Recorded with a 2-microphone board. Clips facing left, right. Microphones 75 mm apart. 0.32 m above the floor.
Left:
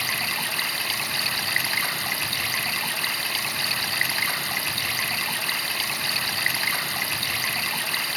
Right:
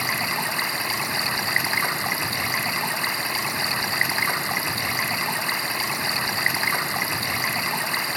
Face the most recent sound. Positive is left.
turn(degrees=-25)  # may be behind; listen again after turning